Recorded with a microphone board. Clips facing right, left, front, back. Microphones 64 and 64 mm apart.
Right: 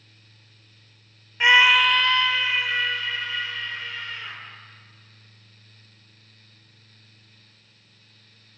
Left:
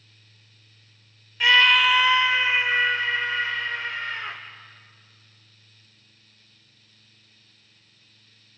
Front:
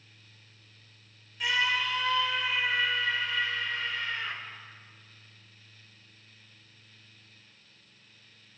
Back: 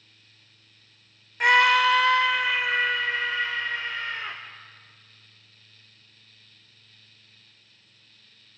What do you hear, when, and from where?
1.4 s a scream: 150° right, 0.6 m; by 4.4 s 135° left, 2 m